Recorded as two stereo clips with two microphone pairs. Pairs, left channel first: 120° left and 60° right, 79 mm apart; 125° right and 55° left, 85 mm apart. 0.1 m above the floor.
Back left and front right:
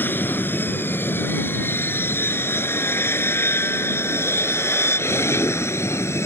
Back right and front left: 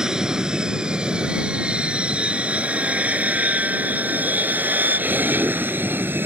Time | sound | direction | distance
0.0 | an aircraft | 130° left | ?